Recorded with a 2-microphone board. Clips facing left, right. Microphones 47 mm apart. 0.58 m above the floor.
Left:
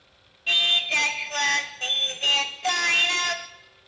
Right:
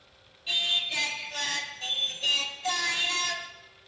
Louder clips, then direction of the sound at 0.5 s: Left 7 dB; 60° left (ahead or behind).